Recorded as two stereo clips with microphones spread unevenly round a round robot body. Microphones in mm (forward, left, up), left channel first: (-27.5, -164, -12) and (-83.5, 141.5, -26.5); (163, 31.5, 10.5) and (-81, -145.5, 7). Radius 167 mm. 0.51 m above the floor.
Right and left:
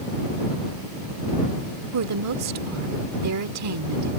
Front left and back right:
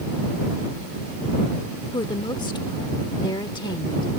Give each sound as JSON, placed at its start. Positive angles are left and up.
{"t": 1.9, "sound": "a woman speaking", "azimuth_deg": 110}